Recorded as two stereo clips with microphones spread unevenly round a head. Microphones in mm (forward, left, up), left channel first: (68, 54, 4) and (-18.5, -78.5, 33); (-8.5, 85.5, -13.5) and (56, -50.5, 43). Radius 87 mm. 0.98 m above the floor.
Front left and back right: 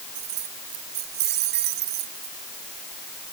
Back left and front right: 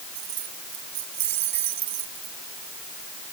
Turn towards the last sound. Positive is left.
turn(degrees=-110)